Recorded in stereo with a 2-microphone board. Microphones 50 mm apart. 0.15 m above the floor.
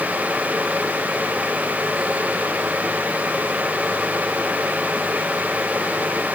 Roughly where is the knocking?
No knocking in this recording.